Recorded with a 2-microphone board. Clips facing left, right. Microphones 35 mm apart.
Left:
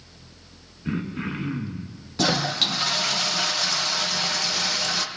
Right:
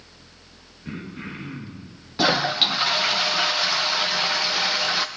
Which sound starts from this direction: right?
A toilet flushing, at 2.2 s.